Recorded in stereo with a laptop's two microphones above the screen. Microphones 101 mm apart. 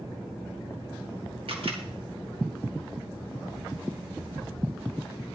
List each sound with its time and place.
1.5 s a camera shutter: 65° right (ahead or behind), 2.5 m